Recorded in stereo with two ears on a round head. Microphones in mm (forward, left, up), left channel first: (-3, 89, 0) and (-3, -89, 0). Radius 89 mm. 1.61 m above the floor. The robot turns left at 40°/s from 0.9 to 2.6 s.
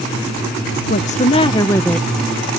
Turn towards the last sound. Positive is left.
turn(degrees=-20)